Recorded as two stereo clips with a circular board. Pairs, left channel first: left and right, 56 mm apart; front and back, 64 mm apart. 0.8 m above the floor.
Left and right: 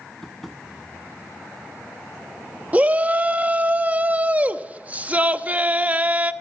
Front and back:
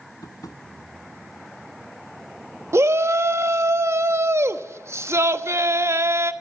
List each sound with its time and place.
0.2 s tapping: 5° left, 1.7 m
2.7 s a shout: 150° right, 1.0 m